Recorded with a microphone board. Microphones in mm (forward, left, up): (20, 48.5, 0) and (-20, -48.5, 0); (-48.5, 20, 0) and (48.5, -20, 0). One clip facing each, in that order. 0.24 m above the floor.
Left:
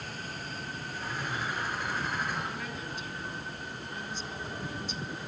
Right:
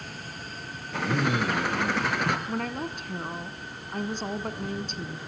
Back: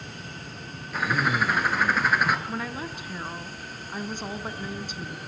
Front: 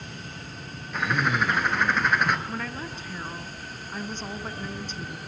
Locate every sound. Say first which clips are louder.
0.9 s a bird: right 11 dB, even; 115° right, 3 m
2.5 s a woman speaking: right 7 dB, back 1 dB; 125° right, 2 m